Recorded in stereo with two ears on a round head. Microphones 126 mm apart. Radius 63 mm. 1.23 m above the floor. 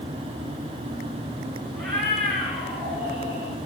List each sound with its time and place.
1.8 s a cat meowing: centre (ahead or behind), 5 m; by 3.6 s 15° right (ahead or behind), 5 m